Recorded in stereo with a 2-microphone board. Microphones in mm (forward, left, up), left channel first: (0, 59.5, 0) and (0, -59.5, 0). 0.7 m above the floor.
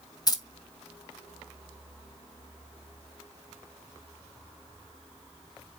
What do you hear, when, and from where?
0.3 s keys jangling: 35° left (ahead or behind), 0.5 m